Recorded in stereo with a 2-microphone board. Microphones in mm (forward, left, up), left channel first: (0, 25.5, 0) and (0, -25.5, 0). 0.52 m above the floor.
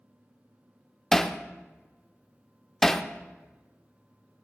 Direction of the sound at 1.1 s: 5° left (ahead or behind).